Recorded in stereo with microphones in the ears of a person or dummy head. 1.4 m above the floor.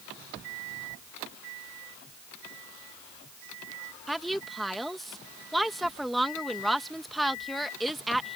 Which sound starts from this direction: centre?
A woman speaking, at 4.1 s.